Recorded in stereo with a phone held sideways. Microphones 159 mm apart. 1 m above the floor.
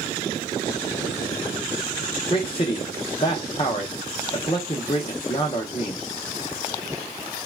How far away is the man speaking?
About 0.5 m.